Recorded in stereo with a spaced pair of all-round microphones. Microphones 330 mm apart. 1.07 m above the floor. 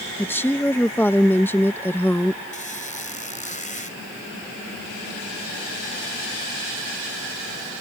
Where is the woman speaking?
5° left (ahead or behind).